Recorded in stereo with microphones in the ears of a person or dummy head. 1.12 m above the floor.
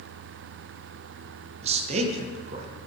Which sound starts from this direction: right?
A man speaking, at 1.6 s.